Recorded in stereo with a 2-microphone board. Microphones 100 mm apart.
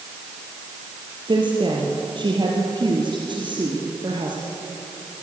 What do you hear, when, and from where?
1.3 s a woman speaking: 50° right (ahead or behind), 4 m